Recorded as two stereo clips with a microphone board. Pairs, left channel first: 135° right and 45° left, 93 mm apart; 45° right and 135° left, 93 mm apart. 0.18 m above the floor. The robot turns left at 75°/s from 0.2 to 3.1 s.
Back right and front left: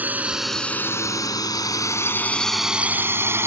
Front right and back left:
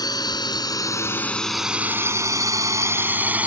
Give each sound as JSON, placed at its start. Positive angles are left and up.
{"t": 0.0, "sound": "a drone", "azimuth_deg": -20}